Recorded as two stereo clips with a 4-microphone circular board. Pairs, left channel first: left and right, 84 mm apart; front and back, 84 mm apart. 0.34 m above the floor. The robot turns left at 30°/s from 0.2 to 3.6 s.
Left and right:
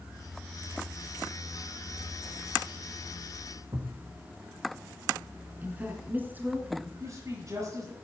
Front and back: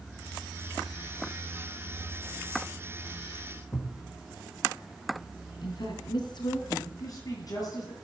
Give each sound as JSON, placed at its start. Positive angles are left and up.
{"t": 3.7, "sound": "a thud", "azimuth_deg": -60, "distance_m": 4.0}
{"t": 5.6, "sound": "a woman speaking", "azimuth_deg": -25, "distance_m": 3.5}
{"t": 7.0, "sound": "a woman speaking", "azimuth_deg": -40, "distance_m": 7.5}